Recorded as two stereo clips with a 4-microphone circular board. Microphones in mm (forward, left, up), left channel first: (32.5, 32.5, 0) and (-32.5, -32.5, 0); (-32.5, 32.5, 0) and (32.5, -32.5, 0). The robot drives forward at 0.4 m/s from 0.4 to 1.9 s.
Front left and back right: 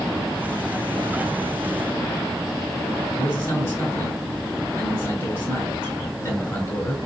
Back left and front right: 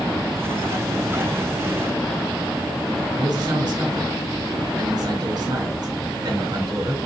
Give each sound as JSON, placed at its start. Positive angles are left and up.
{"t": 3.2, "sound": "a man speaking", "azimuth_deg": -15, "distance_m": 2.0}